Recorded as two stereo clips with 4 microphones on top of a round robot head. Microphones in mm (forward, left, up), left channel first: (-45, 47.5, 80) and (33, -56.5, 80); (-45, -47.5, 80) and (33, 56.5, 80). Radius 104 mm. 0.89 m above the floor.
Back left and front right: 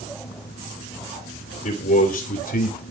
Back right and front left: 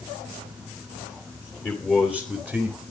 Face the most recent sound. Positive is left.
turn(degrees=140)